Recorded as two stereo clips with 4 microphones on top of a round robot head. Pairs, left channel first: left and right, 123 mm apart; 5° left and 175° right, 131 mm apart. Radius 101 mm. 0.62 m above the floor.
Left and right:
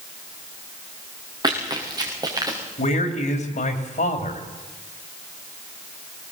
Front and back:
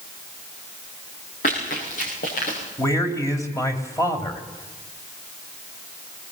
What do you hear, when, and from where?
1.4 s running footsteps: 35° right, 5 m; by 2.6 s 30° right, 5.5 m
2.8 s a man speaking: 70° left, 3 m